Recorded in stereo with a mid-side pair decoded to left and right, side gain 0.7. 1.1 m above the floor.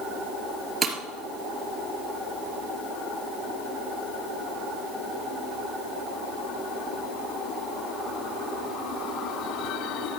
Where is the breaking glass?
25° right, 3 m.